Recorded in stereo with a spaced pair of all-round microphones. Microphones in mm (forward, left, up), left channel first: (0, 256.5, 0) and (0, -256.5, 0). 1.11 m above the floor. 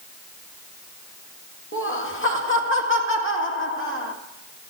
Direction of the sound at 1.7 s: 25° left (ahead or behind).